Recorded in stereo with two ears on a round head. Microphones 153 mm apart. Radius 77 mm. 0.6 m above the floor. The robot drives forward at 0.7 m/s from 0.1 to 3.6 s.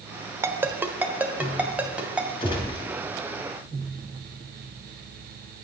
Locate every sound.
0.4 s a ringtone: 15° right (ahead or behind), 1.1 m; by 2.3 s 5° right (ahead or behind), 2.5 m
2.4 s a gunshot: 30° left (ahead or behind), 3 m